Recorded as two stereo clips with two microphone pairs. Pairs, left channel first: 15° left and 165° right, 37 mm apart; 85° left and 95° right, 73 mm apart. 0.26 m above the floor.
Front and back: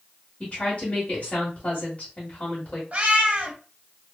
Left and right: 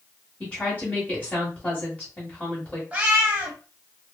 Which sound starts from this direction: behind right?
A cat meowing, at 2.9 s.